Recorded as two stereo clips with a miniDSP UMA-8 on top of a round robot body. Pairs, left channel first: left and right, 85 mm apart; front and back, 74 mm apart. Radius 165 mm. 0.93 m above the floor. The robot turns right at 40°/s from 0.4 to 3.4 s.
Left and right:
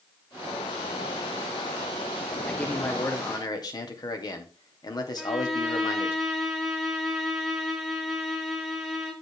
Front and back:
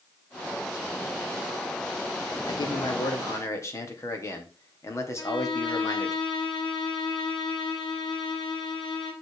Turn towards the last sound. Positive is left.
turn(degrees=0)